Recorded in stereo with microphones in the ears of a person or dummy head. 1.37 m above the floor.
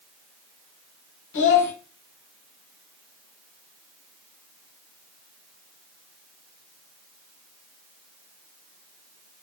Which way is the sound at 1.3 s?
65° left (ahead or behind).